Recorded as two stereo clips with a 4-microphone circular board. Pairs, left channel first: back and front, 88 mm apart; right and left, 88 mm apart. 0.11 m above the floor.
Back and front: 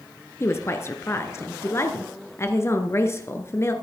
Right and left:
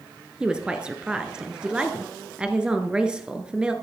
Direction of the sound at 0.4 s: 160° left.